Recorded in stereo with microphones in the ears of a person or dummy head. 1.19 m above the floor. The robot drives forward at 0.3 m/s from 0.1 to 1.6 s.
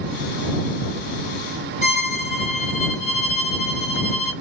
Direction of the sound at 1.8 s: 40° left (ahead or behind).